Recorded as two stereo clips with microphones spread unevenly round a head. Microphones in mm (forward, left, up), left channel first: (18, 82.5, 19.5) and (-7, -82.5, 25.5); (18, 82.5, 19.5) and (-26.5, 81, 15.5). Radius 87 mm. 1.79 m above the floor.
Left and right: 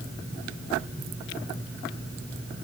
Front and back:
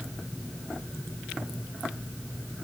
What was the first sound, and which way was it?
Only background noise.